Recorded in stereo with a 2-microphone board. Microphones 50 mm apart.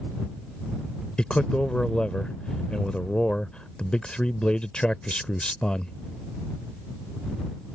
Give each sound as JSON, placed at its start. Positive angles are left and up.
{"t": 1.2, "sound": "a man speaking", "side_deg": 20}